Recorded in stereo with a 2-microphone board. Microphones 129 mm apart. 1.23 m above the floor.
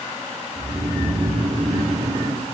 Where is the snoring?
55° right (ahead or behind), 1.3 m.